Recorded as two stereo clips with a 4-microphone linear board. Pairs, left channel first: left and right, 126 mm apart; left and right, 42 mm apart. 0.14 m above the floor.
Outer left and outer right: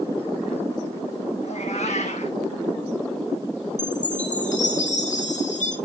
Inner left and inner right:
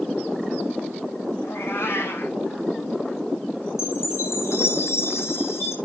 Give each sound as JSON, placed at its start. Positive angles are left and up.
{"t": 1.4, "sound": "a cat meowing", "side_deg": 65, "distance_m": 2.0}
{"t": 3.8, "sound": "a chime", "side_deg": 80, "distance_m": 1.9}